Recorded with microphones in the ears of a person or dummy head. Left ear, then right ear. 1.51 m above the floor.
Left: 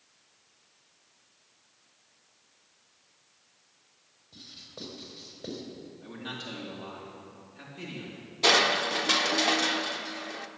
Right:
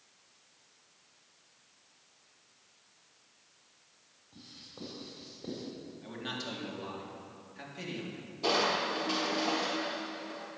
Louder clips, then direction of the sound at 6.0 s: Even; 20° right (ahead or behind).